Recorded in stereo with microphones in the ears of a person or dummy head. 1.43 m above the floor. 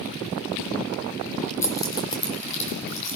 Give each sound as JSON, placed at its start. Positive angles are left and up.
{"t": 1.6, "sound": "keys jangling", "side_deg": 15, "distance_m": 3.5}